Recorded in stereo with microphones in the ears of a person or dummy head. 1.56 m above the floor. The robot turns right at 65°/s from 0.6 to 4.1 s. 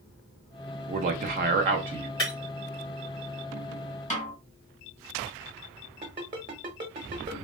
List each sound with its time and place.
0.9 s a man speaking: 120° right, 0.6 m; by 2.1 s 40° right, 0.6 m
2.2 s breaking glass: 25° left (ahead or behind), 1.4 m; by 2.3 s 30° left (ahead or behind), 1.4 m
4.1 s a snare drum: 30° left (ahead or behind), 1.7 m
6.0 s a ringtone: 30° right (ahead or behind), 0.9 m